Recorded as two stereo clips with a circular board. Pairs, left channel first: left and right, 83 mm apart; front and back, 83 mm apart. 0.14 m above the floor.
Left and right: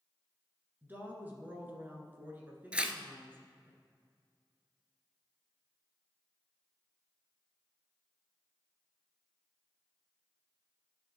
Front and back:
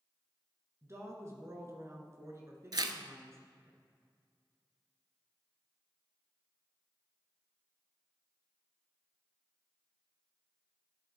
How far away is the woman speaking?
About 1.4 m.